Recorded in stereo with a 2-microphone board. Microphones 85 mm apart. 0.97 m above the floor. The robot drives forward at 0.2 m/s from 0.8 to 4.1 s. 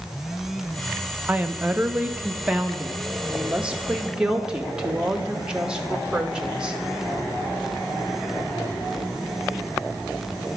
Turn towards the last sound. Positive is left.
turn(degrees=-10)  # may be behind; listen again after turning